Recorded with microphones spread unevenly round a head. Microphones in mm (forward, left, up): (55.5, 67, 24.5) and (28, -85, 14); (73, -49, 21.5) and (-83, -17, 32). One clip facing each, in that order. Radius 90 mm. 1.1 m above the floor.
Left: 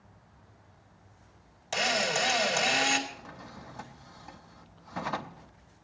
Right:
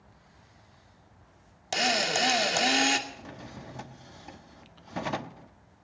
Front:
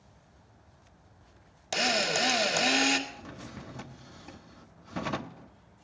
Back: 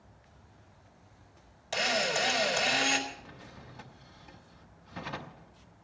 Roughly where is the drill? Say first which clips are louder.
Right 1 dB, front 1 dB; ahead right.